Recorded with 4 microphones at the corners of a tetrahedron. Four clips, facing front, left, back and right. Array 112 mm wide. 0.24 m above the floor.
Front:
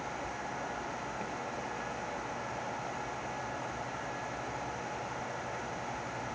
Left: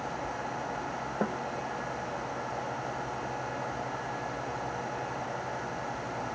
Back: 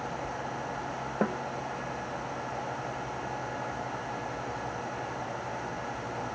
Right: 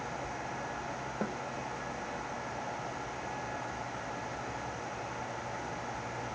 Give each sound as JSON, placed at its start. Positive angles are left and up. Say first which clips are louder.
{"t": 1.2, "sound": "a snare drum", "louder": "left 5 dB, back 10 dB", "azimuth_deg": 155}